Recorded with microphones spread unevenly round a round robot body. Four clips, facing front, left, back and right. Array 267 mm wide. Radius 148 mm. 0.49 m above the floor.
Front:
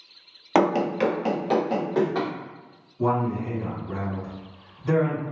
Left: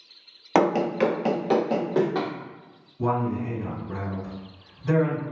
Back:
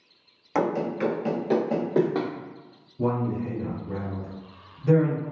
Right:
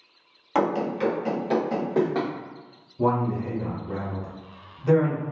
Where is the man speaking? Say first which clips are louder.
Right 2 dB, front 2 dB; 140° right, 1.3 m.